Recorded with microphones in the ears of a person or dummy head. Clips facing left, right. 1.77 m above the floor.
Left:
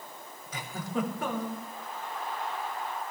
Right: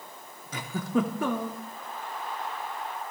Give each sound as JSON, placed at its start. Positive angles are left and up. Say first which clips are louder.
{"t": 0.5, "sound": "a giggle", "louder": "right 6 dB", "side_deg": -70, "distance_m": 3.5}